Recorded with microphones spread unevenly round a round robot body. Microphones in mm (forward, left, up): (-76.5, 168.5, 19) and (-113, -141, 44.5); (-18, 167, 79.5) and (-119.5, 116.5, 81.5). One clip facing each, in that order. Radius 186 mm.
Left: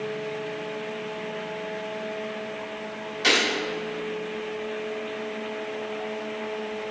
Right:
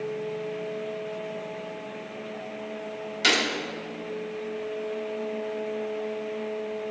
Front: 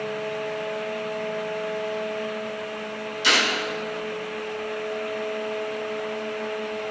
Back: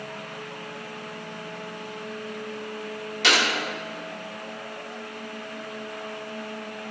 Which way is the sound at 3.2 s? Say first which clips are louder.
Left 2 dB, back 1 dB; 135° right.